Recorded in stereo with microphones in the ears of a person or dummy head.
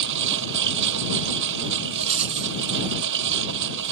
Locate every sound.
0.0 s a lawn mower: 65° right (ahead or behind)
1.9 s a rattle: 35° right (ahead or behind)